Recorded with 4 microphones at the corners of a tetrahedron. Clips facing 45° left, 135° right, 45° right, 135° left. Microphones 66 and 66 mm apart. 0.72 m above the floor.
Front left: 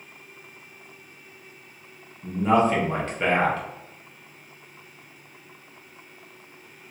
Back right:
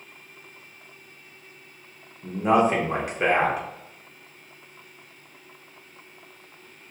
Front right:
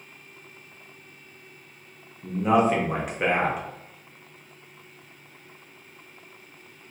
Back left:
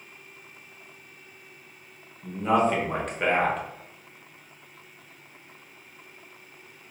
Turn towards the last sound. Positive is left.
turn(degrees=-105)